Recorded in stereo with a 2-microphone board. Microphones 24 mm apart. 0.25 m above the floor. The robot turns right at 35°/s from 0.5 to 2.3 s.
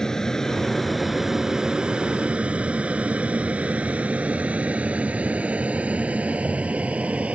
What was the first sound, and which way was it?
An aircraft, 25° left (ahead or behind).